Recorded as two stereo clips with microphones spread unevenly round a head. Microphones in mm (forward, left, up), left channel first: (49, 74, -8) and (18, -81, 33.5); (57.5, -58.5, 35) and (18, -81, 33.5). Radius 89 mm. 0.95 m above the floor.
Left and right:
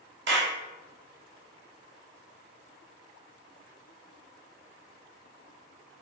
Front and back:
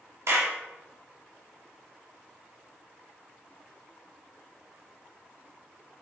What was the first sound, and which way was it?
A clap, 135° right.